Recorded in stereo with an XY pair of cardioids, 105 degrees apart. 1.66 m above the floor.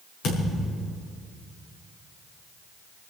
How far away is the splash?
No splash in this recording.